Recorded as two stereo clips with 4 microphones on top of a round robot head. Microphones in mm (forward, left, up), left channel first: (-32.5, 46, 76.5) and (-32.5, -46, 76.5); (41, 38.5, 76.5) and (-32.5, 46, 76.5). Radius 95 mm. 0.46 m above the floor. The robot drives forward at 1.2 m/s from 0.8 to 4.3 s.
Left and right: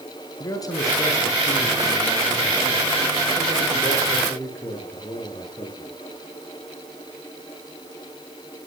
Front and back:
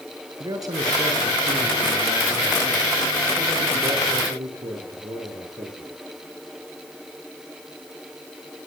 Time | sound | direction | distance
0.4 | a man speaking | 140° left | 7.5 m